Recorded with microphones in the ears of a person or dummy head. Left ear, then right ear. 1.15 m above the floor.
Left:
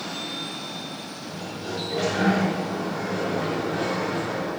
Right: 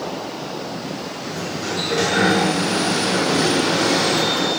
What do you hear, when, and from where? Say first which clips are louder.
1.2 s a sliding door: right 9 dB; 45° right (ahead or behind), 5 m